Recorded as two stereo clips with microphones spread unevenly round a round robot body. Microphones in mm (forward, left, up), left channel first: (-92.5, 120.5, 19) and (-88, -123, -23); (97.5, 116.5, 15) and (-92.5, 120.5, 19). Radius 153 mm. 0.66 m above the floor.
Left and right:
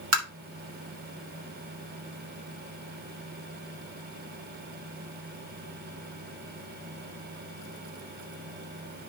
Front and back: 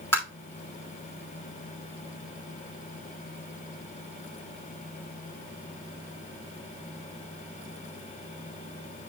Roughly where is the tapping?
Right.